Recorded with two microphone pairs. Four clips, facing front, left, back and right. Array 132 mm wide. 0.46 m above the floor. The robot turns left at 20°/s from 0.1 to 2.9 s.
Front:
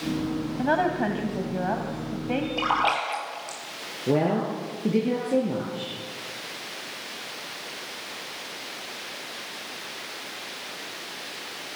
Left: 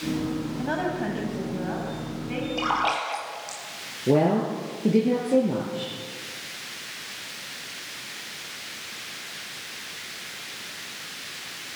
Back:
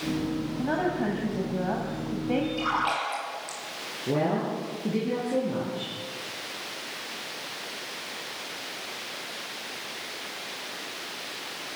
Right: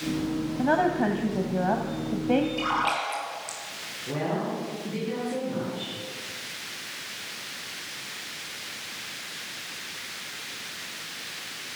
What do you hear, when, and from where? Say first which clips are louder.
0.6 s a woman speaking: right 7 dB, front 4 dB; 30° right, 3 m; by 2.5 s 70° right, 3 m
2.6 s a splash: left 1 dB, front 3 dB; 25° left, 7 m; by 3.6 s 20° left, 7 m
4.1 s a woman speaking: left 8 dB, front 3 dB; 65° left, 8 m